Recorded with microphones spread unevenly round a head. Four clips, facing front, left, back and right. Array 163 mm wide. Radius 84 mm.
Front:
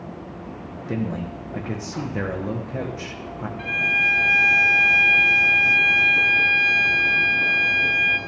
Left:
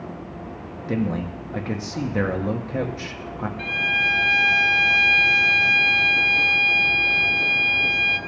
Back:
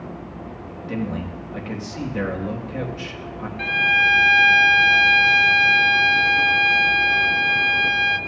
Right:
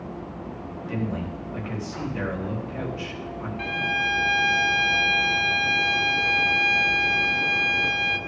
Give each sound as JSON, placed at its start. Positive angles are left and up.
{"t": 0.9, "sound": "a man speaking", "azimuth_deg": 70, "distance_m": 1.5}
{"t": 3.6, "sound": "a violin", "azimuth_deg": -155, "distance_m": 0.7}